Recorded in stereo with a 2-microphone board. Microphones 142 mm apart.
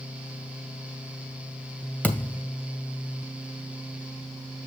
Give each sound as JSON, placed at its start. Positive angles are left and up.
{"t": 2.0, "sound": "a thud", "side_deg": 10, "distance_m": 1.9}